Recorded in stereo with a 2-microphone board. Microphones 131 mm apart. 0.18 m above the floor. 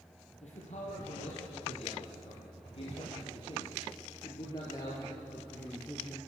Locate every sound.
0.4 s a man speaking: 60° left (ahead or behind), 5 m; by 6.2 s 10° left (ahead or behind), 3 m